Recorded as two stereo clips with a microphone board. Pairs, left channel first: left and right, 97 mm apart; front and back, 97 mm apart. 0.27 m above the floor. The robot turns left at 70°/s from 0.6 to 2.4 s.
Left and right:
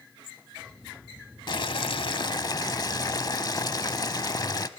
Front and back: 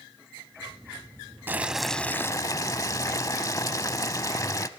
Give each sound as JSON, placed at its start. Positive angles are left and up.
{"t": 1.5, "sound": "boiling", "azimuth_deg": 115, "distance_m": 0.7}